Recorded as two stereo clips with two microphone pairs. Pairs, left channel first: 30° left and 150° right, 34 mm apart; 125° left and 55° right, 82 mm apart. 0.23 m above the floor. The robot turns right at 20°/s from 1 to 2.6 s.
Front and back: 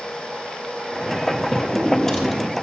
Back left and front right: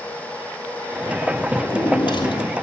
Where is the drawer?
95° left, 2.5 m; by 2.5 s 110° left, 2.5 m.